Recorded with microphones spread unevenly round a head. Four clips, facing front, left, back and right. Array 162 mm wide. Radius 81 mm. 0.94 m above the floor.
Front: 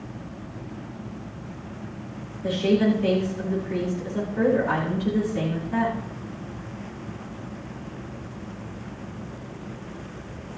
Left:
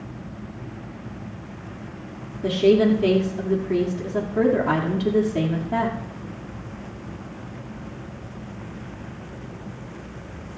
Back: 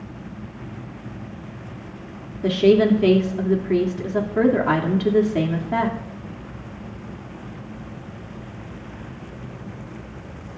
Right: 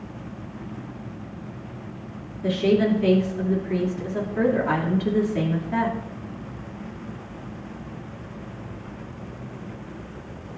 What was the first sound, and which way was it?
A woman speaking, 155° left.